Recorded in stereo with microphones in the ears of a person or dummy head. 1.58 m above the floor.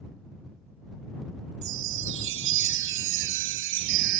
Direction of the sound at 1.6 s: 70° right (ahead or behind).